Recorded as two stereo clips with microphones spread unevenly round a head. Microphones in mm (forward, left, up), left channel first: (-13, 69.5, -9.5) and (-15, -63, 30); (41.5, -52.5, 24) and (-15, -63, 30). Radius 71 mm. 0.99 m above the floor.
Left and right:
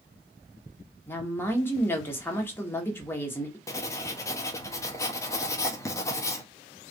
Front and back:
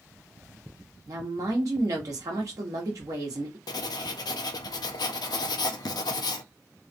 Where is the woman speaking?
155° left, 1.3 m.